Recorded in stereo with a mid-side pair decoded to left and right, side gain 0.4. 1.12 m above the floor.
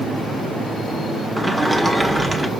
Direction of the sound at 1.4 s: 15° right.